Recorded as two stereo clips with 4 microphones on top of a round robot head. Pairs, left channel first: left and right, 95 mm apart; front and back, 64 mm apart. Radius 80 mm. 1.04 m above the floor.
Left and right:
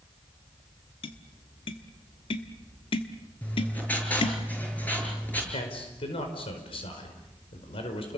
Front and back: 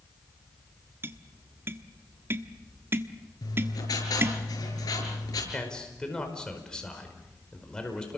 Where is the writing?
20° left, 7.5 m.